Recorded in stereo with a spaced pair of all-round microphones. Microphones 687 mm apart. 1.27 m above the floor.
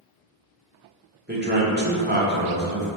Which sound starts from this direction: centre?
A man speaking, at 1.3 s.